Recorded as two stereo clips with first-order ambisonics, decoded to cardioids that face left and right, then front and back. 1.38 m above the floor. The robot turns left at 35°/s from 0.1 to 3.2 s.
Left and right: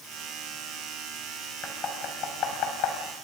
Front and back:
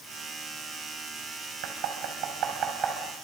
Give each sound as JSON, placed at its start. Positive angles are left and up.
{"t": 1.6, "sound": "knocking", "azimuth_deg": 160, "distance_m": 5.0}